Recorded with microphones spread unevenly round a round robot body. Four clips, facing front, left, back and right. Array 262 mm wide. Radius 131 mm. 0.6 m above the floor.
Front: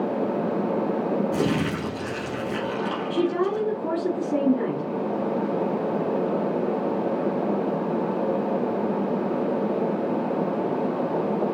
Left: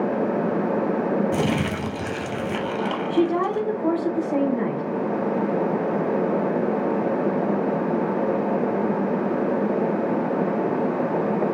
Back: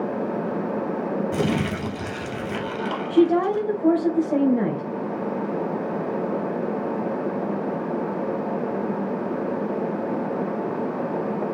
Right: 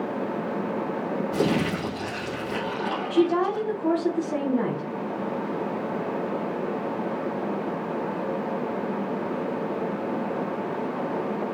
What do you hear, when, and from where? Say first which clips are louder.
1.3 s crumpling: left 1 dB, even; 135° left, 2.5 m
3.1 s a woman speaking: even, back 6 dB; 170° left, 3 m